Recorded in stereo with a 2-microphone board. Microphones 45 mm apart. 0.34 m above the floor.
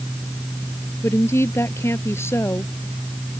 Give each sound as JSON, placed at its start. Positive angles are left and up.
{"t": 1.0, "sound": "a woman speaking", "side_deg": 70}